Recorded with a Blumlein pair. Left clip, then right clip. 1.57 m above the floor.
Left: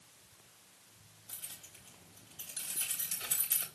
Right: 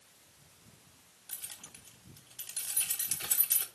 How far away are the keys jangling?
About 1.4 m.